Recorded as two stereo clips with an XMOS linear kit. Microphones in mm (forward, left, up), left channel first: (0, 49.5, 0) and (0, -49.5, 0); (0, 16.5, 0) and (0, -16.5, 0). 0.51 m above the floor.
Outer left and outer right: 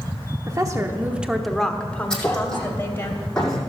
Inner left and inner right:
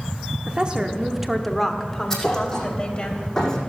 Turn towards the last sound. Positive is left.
turn(degrees=10)  # may be behind; listen again after turning